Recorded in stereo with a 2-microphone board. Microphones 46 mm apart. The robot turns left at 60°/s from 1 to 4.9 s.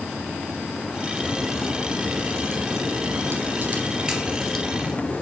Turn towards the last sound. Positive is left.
turn(degrees=150)